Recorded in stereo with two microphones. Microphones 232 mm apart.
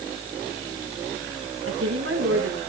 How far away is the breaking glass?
I don't hear breaking glass.